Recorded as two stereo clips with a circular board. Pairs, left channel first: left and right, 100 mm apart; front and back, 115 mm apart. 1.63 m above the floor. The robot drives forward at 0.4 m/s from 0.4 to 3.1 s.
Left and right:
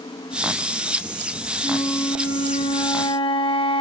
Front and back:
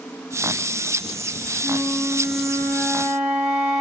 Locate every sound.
1.6 s a flute: 100° left, 2.5 m; by 3.8 s 110° left, 3 m